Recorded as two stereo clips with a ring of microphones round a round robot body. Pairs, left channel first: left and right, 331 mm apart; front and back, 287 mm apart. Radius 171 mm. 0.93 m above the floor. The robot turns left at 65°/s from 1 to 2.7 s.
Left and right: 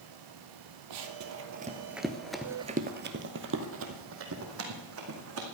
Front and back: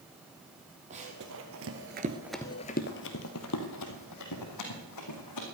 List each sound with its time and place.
0.9 s running footsteps: 110° right, 2.0 m; by 5.4 s 40° right, 4 m